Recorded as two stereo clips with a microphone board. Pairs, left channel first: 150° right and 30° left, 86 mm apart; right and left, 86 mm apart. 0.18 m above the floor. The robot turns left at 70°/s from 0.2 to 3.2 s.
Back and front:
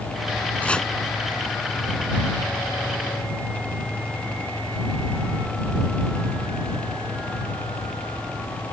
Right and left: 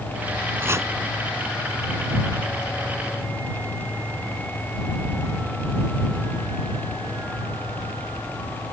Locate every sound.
0.6 s chopping: 145° left; by 0.9 s 125° left